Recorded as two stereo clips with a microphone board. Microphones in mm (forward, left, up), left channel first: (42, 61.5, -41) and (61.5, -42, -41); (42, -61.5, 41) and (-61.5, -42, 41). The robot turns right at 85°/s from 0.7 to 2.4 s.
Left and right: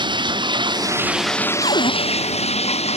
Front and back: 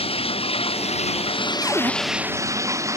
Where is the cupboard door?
95° left; by 1.9 s 120° left.